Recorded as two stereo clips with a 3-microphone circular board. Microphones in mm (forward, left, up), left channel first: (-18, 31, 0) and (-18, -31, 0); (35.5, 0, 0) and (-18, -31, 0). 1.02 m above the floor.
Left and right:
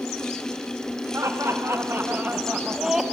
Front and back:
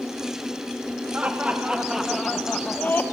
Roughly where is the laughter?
Right.